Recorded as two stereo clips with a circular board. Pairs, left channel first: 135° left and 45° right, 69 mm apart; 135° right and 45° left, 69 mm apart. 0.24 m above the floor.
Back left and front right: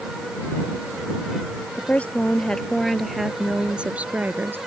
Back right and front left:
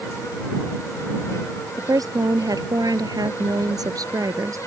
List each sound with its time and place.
1.8 s a woman speaking: 70° left; by 4.6 s 15° left